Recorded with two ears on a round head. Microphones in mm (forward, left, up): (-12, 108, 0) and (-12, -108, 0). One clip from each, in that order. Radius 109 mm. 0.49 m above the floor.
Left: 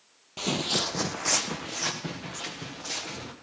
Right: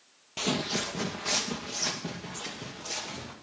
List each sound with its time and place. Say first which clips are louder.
0.4 s footsteps: left 3 dB; 15° right (ahead or behind), 0.5 m; by 3.3 s 65° left (ahead or behind), 4.5 m